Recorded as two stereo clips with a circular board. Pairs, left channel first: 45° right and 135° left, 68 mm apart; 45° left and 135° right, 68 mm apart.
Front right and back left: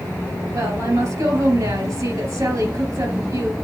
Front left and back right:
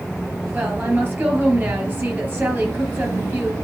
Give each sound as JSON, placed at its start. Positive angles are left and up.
{"t": 0.5, "sound": "a woman speaking", "azimuth_deg": 160, "distance_m": 3.5}